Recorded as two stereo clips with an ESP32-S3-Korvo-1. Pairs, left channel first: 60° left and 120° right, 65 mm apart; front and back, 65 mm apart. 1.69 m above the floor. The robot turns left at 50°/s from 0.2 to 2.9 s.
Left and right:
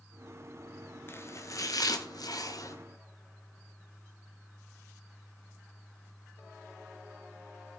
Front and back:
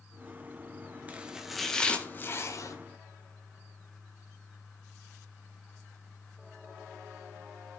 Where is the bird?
I don't hear a bird.